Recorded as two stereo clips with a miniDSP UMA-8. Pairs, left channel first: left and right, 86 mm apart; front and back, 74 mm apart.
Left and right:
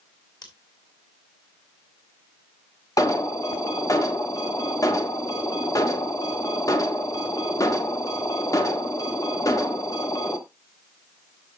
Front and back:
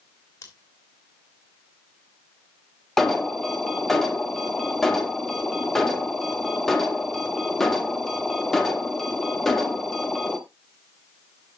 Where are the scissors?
50° left, 3.5 m.